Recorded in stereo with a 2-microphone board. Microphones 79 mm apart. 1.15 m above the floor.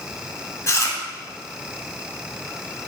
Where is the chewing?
40° left (ahead or behind), 1.4 m.